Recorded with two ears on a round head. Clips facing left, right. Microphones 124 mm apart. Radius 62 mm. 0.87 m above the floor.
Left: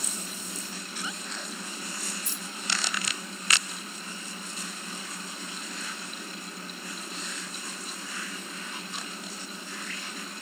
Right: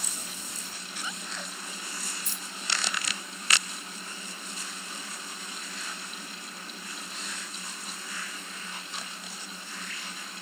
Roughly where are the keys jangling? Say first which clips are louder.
Left 2 dB; right.